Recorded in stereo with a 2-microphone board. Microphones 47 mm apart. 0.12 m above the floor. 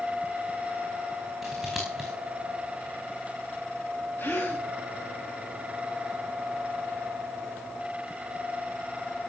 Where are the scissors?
5° right (ahead or behind), 4.5 m.